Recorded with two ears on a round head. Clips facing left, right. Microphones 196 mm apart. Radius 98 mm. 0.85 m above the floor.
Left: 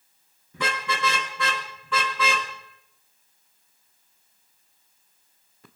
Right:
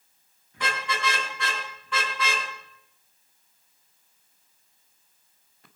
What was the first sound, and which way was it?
A car horn, 75° left (ahead or behind).